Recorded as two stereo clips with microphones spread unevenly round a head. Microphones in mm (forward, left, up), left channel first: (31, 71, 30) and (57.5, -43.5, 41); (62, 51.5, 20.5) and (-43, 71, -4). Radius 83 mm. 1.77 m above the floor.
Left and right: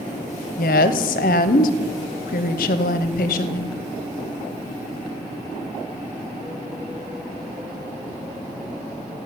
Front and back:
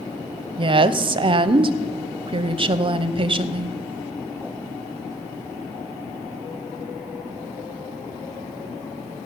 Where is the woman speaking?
125° left, 0.9 m.